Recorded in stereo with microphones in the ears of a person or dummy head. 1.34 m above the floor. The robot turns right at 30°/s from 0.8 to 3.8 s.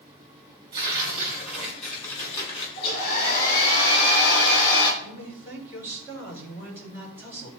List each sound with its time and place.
0.7 s tearing paper: 30° right, 4.5 m; by 2.7 s 25° left, 4.5 m
2.8 s a hair dryer: 35° left, 3 m; by 4.9 s 65° left, 3 m
5.0 s a man speaking: 15° right (ahead or behind), 3 m